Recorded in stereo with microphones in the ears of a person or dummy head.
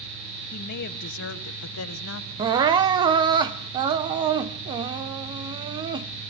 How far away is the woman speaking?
About 1.4 m.